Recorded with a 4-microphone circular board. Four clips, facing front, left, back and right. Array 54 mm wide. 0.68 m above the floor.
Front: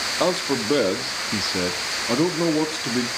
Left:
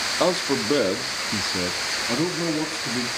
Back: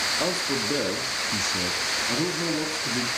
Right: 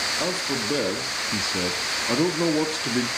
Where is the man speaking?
50° left, 1.5 m; by 3.1 s 40° right, 1.9 m.